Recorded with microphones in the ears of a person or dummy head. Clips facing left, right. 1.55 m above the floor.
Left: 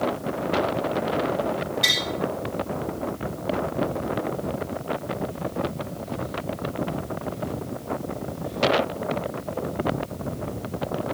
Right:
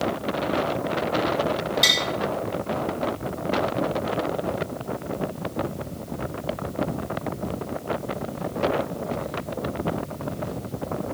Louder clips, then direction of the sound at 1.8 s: Right 2 dB; 60° right (ahead or behind).